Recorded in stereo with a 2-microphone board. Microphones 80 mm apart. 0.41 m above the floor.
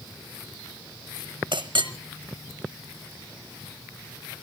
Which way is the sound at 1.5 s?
70° right (ahead or behind).